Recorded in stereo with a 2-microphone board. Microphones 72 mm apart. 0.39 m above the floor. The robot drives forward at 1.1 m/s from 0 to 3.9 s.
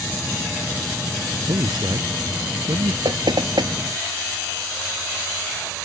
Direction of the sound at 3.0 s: 80° right.